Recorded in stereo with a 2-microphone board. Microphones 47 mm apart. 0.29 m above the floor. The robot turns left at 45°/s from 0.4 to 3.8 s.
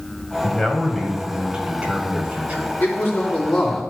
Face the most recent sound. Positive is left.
turn(degrees=10)